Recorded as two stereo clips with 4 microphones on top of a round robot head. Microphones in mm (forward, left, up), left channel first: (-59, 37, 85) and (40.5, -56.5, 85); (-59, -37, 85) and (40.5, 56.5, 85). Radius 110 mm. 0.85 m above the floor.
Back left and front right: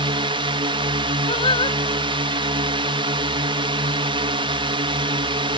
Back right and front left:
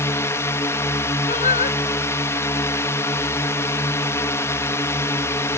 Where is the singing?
170° right.